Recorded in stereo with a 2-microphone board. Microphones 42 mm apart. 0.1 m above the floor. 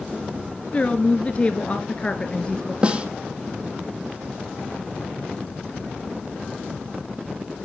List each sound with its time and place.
0.7 s a woman speaking: 30° left (ahead or behind), 1.4 m; by 2.7 s 20° left (ahead or behind), 1.8 m
2.8 s a snare drum: 30° right (ahead or behind), 1.5 m